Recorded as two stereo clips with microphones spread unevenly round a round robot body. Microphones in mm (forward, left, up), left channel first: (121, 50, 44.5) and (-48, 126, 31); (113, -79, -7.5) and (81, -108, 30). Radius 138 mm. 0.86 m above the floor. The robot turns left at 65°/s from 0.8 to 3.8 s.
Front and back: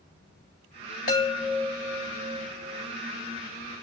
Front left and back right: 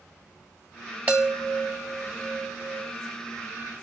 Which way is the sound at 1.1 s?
85° right.